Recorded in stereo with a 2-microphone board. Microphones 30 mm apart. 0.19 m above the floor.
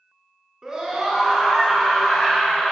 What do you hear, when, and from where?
0.6 s a scream: 20° right (ahead or behind), 2 m; by 2.7 s 15° left (ahead or behind), 2 m